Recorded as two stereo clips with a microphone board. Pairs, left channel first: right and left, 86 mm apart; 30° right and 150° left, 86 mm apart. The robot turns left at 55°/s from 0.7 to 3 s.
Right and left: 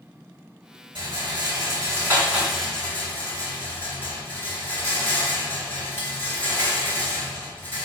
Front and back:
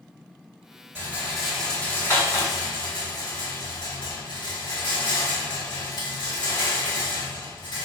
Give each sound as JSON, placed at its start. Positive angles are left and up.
{"t": 0.9, "sound": "a rattle", "azimuth_deg": 90, "distance_m": 3.0}